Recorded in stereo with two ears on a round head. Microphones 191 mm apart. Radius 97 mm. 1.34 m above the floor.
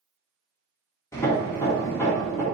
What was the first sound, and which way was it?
Hammering, 15° left (ahead or behind).